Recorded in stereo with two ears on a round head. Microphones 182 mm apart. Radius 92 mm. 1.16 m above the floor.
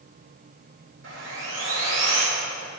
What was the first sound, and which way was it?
Sawing, 60° right (ahead or behind).